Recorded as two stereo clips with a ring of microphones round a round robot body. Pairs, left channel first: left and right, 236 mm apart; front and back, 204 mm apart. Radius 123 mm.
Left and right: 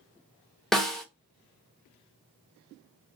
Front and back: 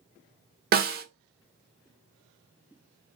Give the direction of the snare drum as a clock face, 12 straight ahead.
6 o'clock.